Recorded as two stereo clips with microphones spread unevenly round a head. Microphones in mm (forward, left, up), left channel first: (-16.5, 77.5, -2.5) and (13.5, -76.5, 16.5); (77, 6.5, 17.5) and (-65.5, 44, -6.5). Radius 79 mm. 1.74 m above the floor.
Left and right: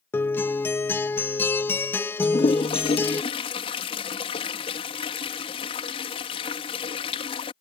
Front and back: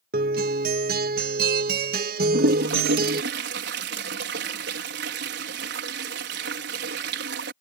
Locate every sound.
0.1 s a guitar: straight behind
2.2 s a toilet flushing: 160° left